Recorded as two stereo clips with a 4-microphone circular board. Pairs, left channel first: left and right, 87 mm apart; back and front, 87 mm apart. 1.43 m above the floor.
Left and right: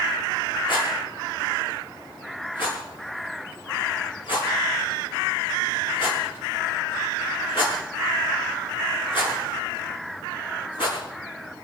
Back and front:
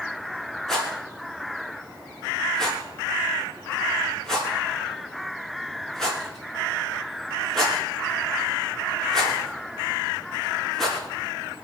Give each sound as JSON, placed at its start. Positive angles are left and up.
{"t": 0.7, "sound": "a rattle", "azimuth_deg": 95, "distance_m": 6.5}